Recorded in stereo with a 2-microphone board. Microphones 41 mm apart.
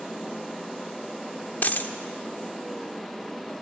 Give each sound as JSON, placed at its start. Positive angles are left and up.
{"t": 1.6, "sound": "a dropped coin", "side_deg": 50, "distance_m": 1.1}